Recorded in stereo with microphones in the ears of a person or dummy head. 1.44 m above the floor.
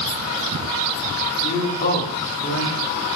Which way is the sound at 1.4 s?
30° left (ahead or behind).